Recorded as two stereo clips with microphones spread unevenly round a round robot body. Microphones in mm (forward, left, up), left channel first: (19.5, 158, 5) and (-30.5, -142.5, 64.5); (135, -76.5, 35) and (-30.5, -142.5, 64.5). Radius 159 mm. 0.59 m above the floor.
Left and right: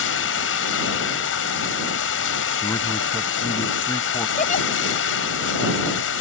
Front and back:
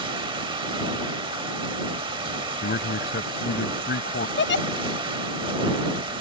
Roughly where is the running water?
Behind left.